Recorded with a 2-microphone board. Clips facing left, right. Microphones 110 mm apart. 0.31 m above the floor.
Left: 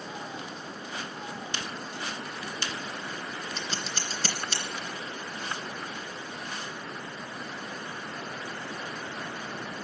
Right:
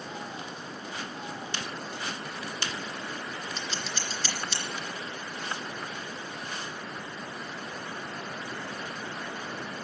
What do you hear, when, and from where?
3.6 s scissors: 45° left (ahead or behind), 2.5 m